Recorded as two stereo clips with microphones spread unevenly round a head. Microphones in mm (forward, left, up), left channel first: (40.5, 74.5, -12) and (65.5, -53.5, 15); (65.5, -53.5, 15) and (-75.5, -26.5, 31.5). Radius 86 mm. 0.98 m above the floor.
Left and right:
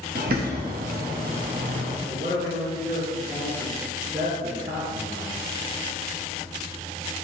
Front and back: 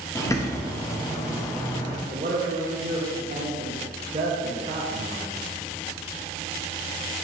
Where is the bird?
75° right, 1.3 m.